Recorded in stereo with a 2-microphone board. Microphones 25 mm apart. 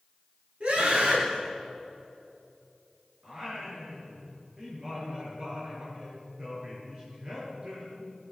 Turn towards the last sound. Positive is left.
turn(degrees=-45)  # may be behind; listen again after turning